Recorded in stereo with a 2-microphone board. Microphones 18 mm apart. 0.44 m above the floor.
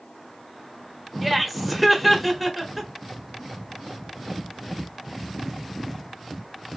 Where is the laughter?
5° right (ahead or behind), 1.3 m.